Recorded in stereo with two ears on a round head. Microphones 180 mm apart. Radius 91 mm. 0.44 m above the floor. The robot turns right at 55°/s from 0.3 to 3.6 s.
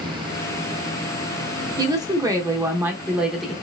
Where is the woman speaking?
20° right (ahead or behind), 0.7 m; by 3.5 s centre (ahead or behind), 0.7 m.